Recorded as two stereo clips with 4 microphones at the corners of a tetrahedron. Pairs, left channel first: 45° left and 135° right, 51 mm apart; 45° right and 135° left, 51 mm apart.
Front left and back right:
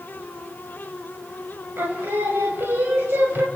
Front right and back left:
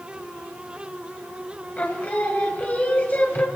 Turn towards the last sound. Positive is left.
turn(degrees=-95)